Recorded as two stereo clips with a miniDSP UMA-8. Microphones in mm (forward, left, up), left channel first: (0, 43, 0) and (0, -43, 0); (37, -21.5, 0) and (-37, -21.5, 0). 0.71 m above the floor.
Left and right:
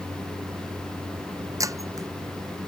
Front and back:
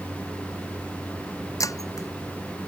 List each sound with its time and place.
0.0 s a vehicle: 115° right
1.6 s breaking glass: 40° right